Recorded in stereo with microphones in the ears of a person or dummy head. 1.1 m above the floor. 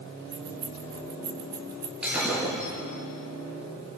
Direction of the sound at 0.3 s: 25° right (ahead or behind).